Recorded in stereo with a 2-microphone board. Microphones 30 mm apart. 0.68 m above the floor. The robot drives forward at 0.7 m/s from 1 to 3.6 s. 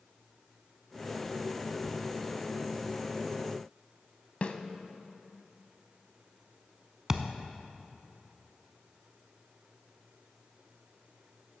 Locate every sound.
4.4 s a snare drum: 45° left (ahead or behind), 0.6 m
7.1 s a thud: 20° right (ahead or behind), 0.6 m